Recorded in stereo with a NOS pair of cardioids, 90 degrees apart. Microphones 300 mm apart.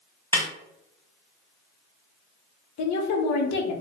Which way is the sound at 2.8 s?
65° left.